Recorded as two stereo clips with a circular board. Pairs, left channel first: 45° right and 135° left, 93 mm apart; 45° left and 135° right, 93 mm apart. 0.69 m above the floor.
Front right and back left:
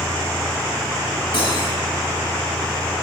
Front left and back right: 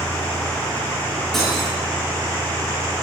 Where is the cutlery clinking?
40° right, 4.5 m.